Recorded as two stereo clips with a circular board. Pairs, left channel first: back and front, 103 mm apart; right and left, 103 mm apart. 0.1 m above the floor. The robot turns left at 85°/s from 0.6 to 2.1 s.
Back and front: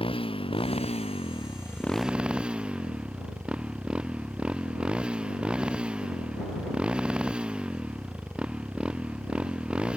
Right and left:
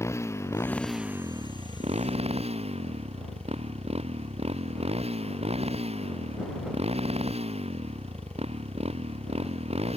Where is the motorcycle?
155° right; by 10.0 s 80° left.